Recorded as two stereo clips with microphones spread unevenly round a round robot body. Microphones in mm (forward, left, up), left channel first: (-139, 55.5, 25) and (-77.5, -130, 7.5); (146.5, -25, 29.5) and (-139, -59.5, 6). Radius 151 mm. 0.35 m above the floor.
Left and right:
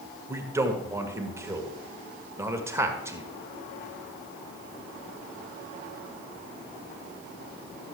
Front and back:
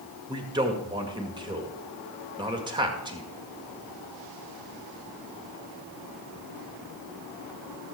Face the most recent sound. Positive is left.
turn(degrees=-125)